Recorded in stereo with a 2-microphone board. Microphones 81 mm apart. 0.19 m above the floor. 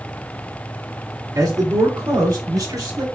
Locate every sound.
1.4 s a man speaking: 50° right (ahead or behind), 2.5 m; by 3.1 s 60° right (ahead or behind), 3.5 m